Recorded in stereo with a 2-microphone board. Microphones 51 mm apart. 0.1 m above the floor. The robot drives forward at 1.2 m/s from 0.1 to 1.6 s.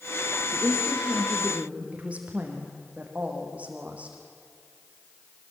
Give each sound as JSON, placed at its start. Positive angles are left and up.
{"t": 0.5, "sound": "a woman speaking", "side_deg": -20, "distance_m": 5.5}